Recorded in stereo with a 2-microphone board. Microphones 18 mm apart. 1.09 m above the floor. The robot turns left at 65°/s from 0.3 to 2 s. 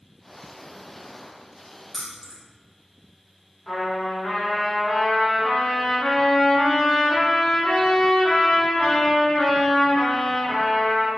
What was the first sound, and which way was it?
Keys jangling, 15° left (ahead or behind).